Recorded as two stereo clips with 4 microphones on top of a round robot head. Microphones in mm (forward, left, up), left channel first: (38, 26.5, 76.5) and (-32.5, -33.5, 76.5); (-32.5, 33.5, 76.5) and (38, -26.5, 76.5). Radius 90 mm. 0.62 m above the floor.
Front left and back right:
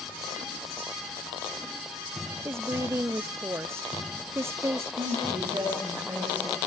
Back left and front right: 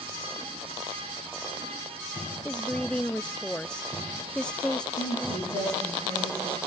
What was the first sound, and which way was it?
A woman speaking, 150° right.